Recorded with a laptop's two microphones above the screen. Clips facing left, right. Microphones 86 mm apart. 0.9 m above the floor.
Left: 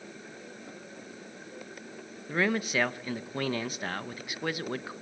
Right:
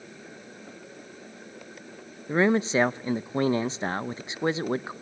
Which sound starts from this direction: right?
A man speaking, at 2.3 s.